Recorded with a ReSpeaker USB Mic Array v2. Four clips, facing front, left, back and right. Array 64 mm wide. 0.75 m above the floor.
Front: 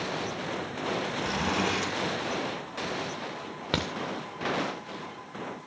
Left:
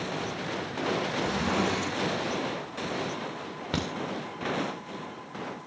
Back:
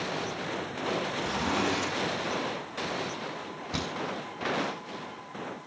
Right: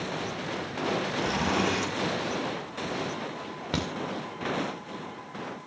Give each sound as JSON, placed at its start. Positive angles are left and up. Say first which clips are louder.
{"t": 1.2, "sound": "a zipper", "louder": "right 2 dB, front 1 dB", "azimuth_deg": -40, "distance_m": 8.0}
{"t": 3.7, "sound": "a crack", "louder": "even, front 4 dB", "azimuth_deg": 0, "distance_m": 2.5}